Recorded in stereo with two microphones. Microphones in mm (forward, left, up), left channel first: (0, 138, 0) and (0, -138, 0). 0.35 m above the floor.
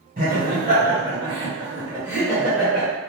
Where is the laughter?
30° right (ahead or behind), 1.5 m; by 2.9 s 5° left (ahead or behind), 1.4 m.